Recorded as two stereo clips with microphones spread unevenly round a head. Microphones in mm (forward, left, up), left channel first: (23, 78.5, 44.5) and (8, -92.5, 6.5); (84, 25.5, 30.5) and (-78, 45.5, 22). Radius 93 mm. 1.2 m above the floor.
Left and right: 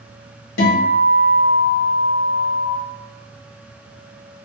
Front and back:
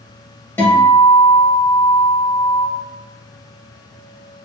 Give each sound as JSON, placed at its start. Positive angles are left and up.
{"t": 0.6, "sound": "a guitar", "azimuth_deg": 70, "distance_m": 1.2}